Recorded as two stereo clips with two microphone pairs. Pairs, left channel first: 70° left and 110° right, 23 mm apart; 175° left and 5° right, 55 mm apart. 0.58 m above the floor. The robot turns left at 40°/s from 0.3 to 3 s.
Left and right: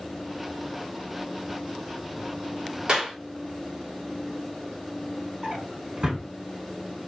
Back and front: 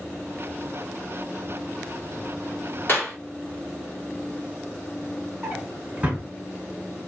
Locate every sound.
2.9 s a clap: 145° right, 1.3 m; by 3.2 s 150° right, 1.3 m
5.4 s a drawer: 65° right, 1.2 m